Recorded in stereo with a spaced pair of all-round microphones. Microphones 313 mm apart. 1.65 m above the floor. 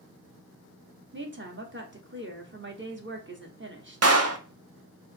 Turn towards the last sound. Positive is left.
turn(degrees=-50)  # may be behind; listen again after turning